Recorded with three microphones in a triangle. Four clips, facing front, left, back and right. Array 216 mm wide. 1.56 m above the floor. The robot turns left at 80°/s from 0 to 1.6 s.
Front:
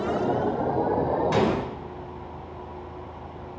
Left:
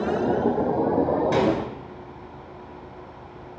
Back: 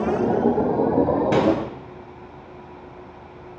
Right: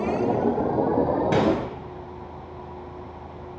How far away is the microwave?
About 4.5 m.